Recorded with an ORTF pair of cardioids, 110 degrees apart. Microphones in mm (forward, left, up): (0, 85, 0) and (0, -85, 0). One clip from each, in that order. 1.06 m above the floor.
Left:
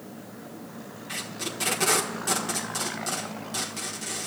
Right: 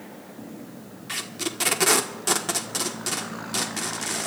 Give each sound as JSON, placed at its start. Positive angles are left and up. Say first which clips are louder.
{"t": 1.1, "sound": "tape being pulled", "louder": "right 3 dB", "azimuth_deg": -40, "distance_m": 1.3}